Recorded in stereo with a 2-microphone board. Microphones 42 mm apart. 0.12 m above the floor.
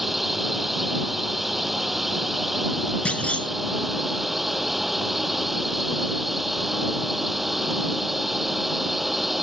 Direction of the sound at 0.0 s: 5° right (ahead or behind).